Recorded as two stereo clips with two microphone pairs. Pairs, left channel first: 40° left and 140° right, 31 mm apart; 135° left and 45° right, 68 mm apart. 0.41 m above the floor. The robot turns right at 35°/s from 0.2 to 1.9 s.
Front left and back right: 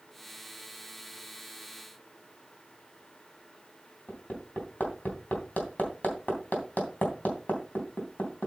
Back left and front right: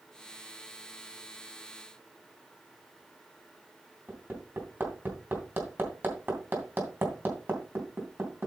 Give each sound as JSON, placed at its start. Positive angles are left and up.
{"t": 4.1, "sound": "hammering", "azimuth_deg": 10, "distance_m": 3.0}